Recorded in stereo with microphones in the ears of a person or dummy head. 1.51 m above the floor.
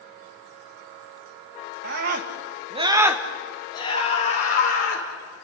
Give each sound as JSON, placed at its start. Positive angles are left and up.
{"t": 1.8, "sound": "a scream", "side_deg": -65, "distance_m": 2.5}